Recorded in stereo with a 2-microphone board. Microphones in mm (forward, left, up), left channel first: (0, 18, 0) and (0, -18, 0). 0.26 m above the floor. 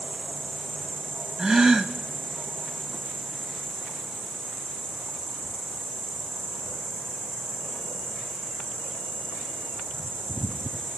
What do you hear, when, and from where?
0.0 s an insect: 5° left (ahead or behind), 7.5 m
1.4 s a gasp: 10° right (ahead or behind), 0.8 m